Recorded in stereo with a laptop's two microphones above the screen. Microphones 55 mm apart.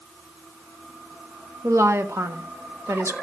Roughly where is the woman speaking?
Right.